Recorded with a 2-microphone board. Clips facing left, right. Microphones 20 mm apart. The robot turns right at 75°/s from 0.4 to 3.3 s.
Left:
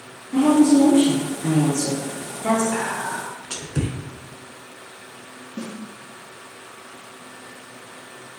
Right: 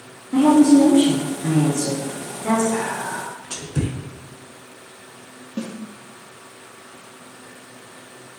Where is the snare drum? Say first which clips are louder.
Right 3 dB; 65° right (ahead or behind), 2.0 m.